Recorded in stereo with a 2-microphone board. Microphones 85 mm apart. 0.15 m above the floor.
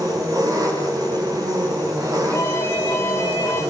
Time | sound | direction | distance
0.0 | an engine running | 45° right (ahead or behind) | 8.5 m
2.3 | an alarm | 30° left (ahead or behind) | 10 m